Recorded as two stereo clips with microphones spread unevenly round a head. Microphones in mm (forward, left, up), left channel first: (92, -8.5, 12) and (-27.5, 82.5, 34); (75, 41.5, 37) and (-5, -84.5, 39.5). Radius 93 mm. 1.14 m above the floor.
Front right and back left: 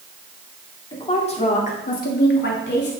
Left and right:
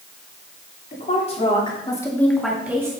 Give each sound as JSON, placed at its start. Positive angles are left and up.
{"t": 0.9, "sound": "a woman speaking", "azimuth_deg": 15, "distance_m": 2.5}